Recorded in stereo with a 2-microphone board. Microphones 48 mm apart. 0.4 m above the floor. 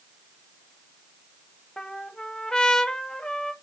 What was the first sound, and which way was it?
A trumpet, 15° left (ahead or behind).